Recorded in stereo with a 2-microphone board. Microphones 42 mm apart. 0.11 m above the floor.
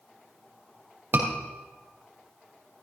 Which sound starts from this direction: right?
A scream, at 1.1 s.